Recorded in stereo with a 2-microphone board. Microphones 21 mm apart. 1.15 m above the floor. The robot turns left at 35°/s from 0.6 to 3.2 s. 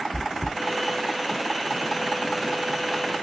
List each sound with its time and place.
0.1 s chewing: 55° left (ahead or behind), 1.2 m